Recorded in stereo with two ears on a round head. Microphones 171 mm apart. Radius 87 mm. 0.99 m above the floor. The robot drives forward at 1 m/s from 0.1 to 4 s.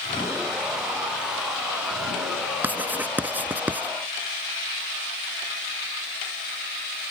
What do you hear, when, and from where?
2.6 s writing: 10° right (ahead or behind)